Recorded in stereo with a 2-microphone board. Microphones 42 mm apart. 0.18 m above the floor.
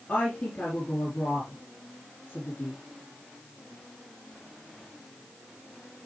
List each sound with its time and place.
0.1 s a woman speaking: 40° left (ahead or behind), 3.5 m